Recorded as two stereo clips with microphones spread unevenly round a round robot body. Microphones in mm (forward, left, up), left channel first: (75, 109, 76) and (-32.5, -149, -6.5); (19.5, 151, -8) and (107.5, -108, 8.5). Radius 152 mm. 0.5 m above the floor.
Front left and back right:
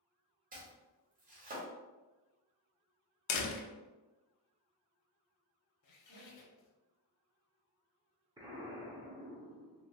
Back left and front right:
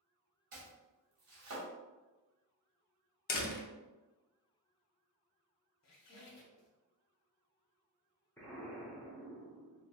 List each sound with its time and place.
0.5 s chopping: 90° right, 1.5 m
3.3 s a door slam: 75° left, 0.6 m
5.8 s a squeak: 95° left, 0.9 m
8.4 s an explosion: 170° right, 0.8 m